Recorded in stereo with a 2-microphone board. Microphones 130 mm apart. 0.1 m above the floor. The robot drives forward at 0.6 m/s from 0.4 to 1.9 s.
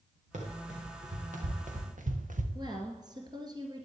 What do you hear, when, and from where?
0.3 s running footsteps: 70° right (ahead or behind), 4 m; by 2.5 s 85° right, 1.7 m
2.5 s a woman speaking: 35° right (ahead or behind), 1.7 m